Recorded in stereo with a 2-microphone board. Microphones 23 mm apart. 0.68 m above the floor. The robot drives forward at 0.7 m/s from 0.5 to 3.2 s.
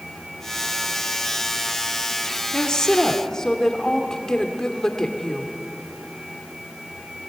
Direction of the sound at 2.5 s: 30° left (ahead or behind).